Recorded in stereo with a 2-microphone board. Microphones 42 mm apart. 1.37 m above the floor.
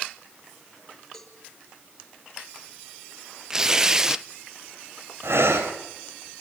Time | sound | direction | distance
1.1 | a cowbell | 10° left (ahead or behind) | 6.5 m
3.5 | tearing paper | 10° right (ahead or behind) | 0.7 m
5.2 | breathing | 75° right (ahead or behind) | 3 m